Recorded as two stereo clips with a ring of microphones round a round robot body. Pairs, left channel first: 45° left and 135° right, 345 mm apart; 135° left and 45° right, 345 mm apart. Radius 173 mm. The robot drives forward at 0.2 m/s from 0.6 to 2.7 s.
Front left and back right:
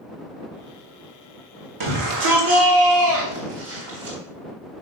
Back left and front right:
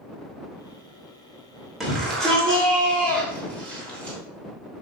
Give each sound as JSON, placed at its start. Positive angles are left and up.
{"t": 1.8, "sound": "a shout", "azimuth_deg": -135, "distance_m": 1.7}